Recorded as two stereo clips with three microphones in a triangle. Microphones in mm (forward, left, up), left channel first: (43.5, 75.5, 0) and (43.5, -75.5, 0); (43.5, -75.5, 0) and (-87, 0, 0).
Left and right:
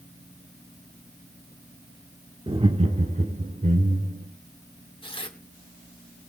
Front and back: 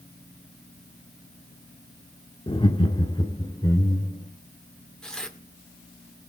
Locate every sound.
2.5 s laughter: 60° right, 1.0 m; by 4.3 s 95° right, 1.9 m
5.0 s tearing paper: 50° left, 1.6 m